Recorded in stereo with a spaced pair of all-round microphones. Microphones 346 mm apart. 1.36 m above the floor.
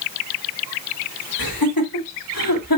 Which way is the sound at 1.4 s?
85° left.